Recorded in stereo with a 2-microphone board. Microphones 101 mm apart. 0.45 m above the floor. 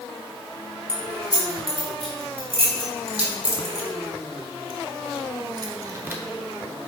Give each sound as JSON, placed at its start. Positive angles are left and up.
{"t": 0.9, "sound": "keys jangling", "side_deg": -65, "distance_m": 3.0}